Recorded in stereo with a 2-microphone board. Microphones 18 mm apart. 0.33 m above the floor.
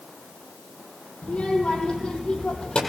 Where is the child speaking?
65° left (ahead or behind), 8.5 m; by 2.8 s 55° left (ahead or behind), 8.5 m.